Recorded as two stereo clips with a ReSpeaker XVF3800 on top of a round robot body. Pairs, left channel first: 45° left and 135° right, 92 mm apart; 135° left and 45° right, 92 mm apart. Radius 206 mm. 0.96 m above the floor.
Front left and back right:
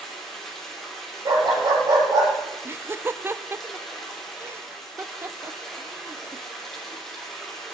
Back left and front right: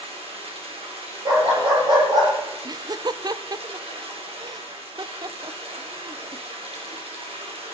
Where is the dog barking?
85° right, 6.5 m.